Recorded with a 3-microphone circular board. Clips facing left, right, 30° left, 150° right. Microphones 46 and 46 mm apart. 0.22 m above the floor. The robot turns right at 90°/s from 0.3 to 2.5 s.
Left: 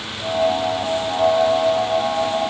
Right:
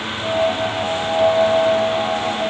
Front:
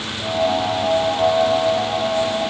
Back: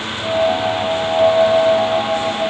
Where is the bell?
I don't hear a bell.